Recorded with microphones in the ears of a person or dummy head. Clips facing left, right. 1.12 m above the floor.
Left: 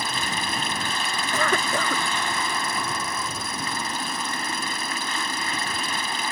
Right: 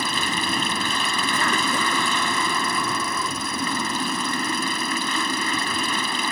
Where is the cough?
50° left (ahead or behind).